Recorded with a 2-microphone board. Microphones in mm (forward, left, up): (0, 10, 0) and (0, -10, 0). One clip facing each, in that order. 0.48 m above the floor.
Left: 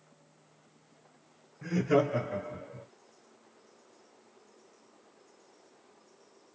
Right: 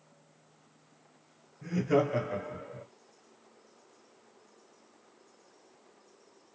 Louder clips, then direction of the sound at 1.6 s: Left 1 dB; 35° left (ahead or behind).